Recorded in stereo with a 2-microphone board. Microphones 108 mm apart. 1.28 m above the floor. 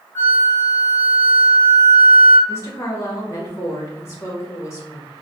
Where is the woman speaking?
25° left (ahead or behind), 1.5 m.